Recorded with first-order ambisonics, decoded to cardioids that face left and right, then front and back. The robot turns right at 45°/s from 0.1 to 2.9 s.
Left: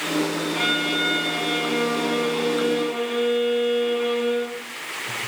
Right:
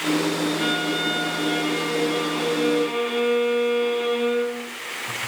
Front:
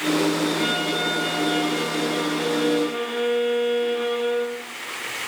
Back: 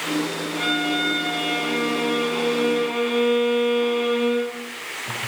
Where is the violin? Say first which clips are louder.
Left 1 dB, back 1 dB; 95° left, 8 m; by 4.6 s 160° right, 8 m.